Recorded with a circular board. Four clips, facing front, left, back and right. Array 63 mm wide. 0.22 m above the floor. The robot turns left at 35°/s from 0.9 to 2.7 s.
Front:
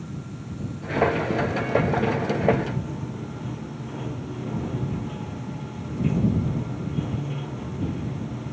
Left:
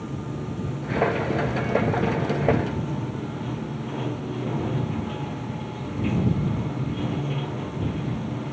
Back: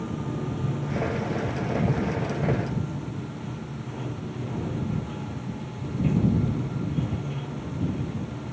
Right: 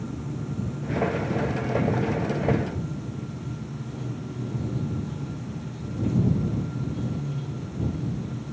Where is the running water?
145° left; by 8.5 s 85° left.